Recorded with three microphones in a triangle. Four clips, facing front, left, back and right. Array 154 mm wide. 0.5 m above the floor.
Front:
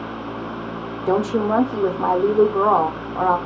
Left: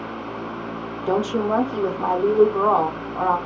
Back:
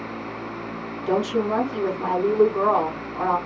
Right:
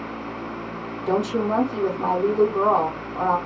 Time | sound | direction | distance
1.1 | a woman speaking | 20° left | 0.8 m